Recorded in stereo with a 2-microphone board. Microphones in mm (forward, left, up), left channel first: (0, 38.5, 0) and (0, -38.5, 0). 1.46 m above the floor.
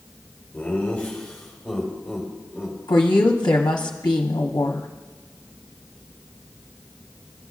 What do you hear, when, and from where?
0.5 s laughter: 20° left (ahead or behind), 2.5 m; by 2.8 s 10° right (ahead or behind), 2.5 m
2.9 s a woman speaking: 65° left (ahead or behind), 0.7 m